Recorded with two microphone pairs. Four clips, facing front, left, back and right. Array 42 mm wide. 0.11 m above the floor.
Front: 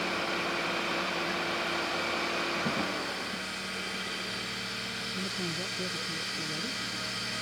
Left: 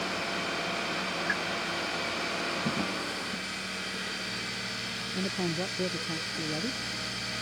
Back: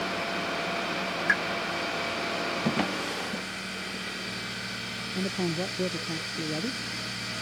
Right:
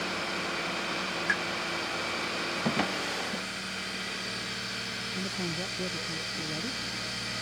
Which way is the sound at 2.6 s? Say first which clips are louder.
Right 2 dB, back 3 dB; 125° right.